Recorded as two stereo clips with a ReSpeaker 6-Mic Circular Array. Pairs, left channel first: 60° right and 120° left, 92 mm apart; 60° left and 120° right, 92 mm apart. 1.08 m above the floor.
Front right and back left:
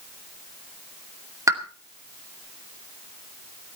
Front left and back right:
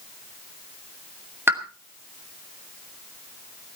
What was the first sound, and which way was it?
A pop, 175° left.